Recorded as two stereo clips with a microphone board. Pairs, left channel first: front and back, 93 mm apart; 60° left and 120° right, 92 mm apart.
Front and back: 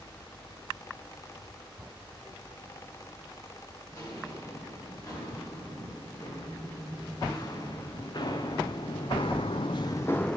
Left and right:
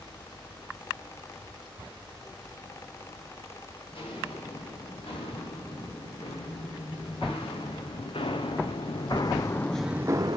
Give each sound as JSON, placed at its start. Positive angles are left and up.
{"t": 3.9, "sound": "footsteps", "azimuth_deg": 55, "distance_m": 5.0}